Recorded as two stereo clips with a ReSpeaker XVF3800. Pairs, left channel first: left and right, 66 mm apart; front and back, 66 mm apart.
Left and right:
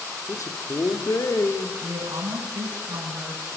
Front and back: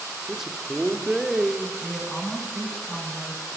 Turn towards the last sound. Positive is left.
turn(degrees=-80)